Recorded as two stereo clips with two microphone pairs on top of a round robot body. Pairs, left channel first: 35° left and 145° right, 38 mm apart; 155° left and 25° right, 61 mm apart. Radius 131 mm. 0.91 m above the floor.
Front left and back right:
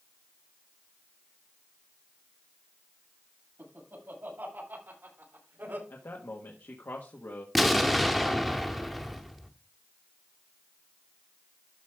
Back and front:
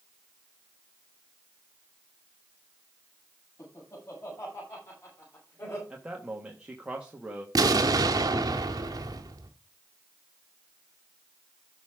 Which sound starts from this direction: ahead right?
An explosion, at 7.5 s.